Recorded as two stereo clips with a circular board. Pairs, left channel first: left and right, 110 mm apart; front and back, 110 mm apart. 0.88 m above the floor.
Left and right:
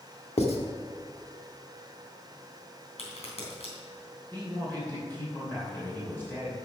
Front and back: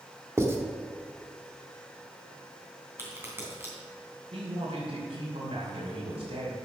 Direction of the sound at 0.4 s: 115° left.